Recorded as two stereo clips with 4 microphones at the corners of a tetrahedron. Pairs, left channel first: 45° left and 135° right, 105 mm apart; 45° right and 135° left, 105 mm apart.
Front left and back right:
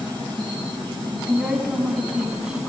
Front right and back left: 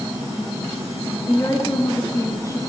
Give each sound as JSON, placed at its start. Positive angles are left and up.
{"t": 1.3, "sound": "a woman speaking", "azimuth_deg": -60, "distance_m": 1.3}